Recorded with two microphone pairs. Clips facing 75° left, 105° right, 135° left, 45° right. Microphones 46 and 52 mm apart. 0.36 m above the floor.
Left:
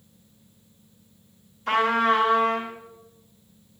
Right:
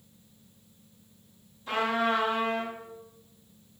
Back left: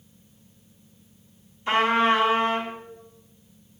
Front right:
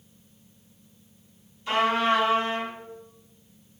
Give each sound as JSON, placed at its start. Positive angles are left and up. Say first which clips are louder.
{"t": 1.7, "sound": "a trumpet", "louder": "left 6 dB, back left 3 dB", "azimuth_deg": 85, "distance_m": 2.5}